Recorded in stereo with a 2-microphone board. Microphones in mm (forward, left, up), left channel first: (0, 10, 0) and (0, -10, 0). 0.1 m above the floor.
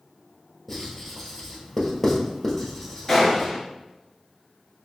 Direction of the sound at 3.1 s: 10° left (ahead or behind).